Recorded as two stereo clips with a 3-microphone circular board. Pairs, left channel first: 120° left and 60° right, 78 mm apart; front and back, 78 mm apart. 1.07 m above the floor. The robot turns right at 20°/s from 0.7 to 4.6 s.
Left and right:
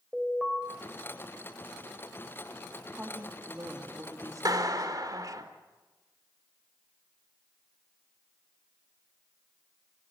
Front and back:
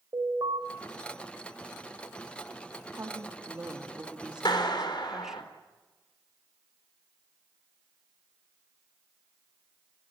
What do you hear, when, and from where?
0.1 s an alarm: 150° right, 4.5 m
2.9 s a woman speaking: 130° right, 2 m; by 5.5 s 95° right, 2 m
4.5 s a clap: 25° right, 2.5 m; by 5.4 s 20° right, 2.5 m